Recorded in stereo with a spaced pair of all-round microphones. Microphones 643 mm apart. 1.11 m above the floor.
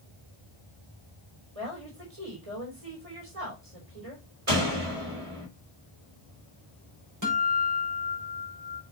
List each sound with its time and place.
1.6 s a woman speaking: 65° right (ahead or behind), 4.5 m
4.5 s a door slam: 60° right (ahead or behind), 4.5 m
7.2 s a guitar: 30° right (ahead or behind), 5.5 m